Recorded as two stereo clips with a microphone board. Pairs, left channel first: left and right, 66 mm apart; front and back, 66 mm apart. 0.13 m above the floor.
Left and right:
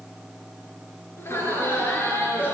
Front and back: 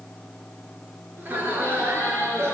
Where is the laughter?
125° left, 2.5 m; by 2.5 s 145° left, 3 m.